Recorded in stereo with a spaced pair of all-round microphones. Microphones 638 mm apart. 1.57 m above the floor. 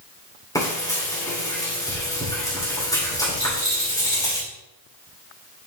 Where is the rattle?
70° right (ahead or behind), 1.9 m.